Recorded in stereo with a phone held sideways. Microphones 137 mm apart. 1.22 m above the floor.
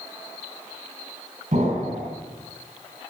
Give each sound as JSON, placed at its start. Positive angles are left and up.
{"t": 1.5, "sound": "an explosion", "side_deg": -75, "distance_m": 3.0}